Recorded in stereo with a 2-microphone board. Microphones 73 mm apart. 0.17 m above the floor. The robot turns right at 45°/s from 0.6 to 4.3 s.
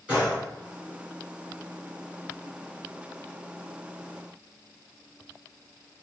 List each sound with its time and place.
0.1 s a gunshot: 15° right (ahead or behind), 1.8 m